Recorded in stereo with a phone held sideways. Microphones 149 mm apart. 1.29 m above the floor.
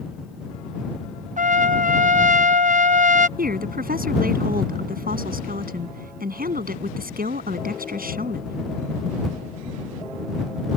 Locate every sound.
1.4 s a trumpet: 60° right (ahead or behind)
3.4 s a woman speaking: 75° right (ahead or behind)